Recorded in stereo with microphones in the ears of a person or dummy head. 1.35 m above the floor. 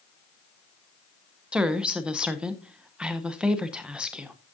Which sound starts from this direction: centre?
A woman speaking, at 1.5 s.